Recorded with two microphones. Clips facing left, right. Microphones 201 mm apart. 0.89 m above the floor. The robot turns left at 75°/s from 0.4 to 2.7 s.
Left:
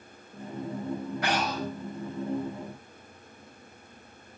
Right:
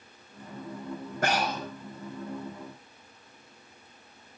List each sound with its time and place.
1.2 s breathing: 130° right, 5 m; by 1.6 s 160° right, 5 m